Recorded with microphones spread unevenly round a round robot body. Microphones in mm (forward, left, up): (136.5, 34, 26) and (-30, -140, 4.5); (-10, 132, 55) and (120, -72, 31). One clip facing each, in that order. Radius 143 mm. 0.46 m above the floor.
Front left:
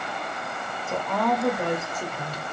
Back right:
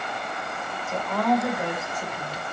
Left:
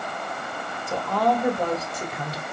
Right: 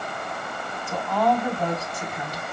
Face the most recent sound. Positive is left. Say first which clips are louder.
# back right 2 dB, even
turn(degrees=95)